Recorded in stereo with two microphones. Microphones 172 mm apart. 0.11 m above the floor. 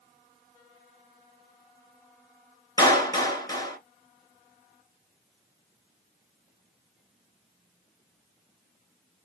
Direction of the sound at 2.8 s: 20° left (ahead or behind).